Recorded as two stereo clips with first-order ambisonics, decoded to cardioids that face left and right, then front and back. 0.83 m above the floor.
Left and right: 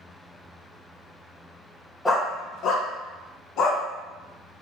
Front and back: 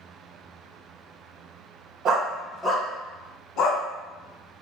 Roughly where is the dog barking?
Behind.